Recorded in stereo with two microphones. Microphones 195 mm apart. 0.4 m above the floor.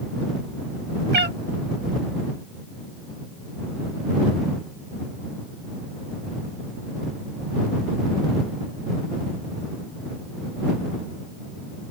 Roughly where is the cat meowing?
Right.